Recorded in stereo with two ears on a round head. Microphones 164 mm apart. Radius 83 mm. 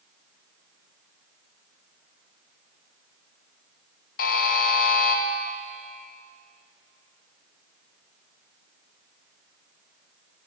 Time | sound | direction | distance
4.2 | a buzzer | 50° left (ahead or behind) | 0.5 m